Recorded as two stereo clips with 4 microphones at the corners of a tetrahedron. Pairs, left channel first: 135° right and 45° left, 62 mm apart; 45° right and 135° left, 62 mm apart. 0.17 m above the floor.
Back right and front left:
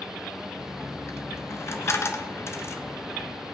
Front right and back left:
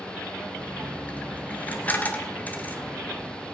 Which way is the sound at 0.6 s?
105° right.